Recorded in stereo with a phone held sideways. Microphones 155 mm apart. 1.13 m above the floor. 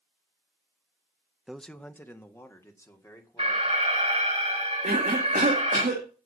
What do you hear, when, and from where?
1.5 s a man speaking: 5° right (ahead or behind), 0.5 m; by 3.9 s 20° left (ahead or behind), 3.5 m
3.4 s an alarm: 40° right (ahead or behind), 6 m
4.8 s a cough: 70° right (ahead or behind), 2.5 m